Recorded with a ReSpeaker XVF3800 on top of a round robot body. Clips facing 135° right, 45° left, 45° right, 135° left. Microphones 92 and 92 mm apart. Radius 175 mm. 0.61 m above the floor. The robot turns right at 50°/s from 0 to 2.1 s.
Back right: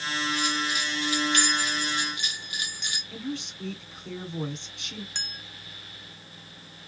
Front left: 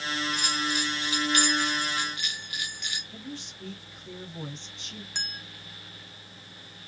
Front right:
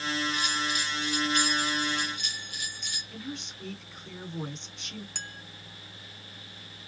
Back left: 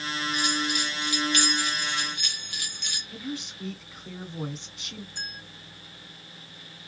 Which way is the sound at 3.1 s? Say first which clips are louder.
Back right 6 dB, back left 5 dB; 140° right.